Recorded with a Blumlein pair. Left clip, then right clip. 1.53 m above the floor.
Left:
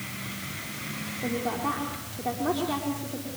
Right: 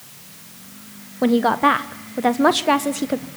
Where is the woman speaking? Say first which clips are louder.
Right 14 dB; 45° right, 1.2 m.